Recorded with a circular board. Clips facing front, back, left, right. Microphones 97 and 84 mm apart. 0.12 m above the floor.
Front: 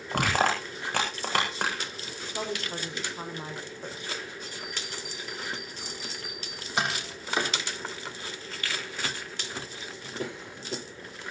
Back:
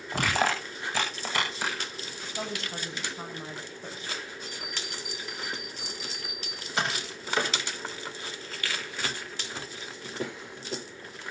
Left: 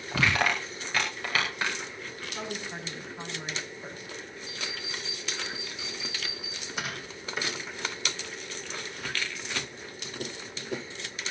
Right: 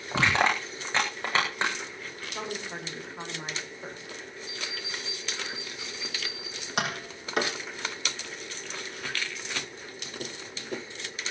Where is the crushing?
25° right, 9 m.